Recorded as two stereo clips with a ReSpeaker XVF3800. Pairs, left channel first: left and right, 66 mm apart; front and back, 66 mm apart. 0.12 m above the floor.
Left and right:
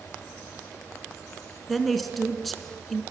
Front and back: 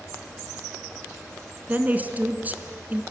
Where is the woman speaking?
175° left, 1.2 m.